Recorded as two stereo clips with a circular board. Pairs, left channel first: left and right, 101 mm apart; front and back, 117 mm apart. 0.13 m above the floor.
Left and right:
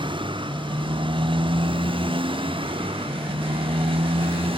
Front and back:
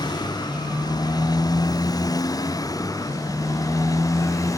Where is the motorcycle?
55° right; by 4.6 s 65° right.